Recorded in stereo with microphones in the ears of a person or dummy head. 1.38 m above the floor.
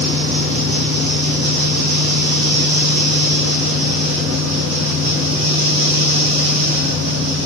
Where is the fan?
75° right (ahead or behind), 6 m.